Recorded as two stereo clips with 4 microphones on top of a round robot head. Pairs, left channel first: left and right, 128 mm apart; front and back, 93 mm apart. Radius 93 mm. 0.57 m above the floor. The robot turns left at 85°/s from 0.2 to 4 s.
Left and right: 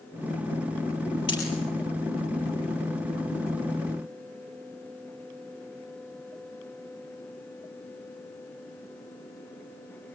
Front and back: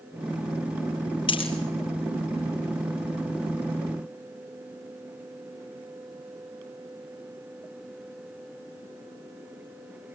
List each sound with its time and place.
1.3 s a dropped coin: 30° left, 4 m; by 1.5 s 10° left, 4 m